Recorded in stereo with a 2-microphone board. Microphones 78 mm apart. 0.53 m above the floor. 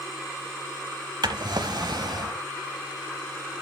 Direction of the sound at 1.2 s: 65° right (ahead or behind).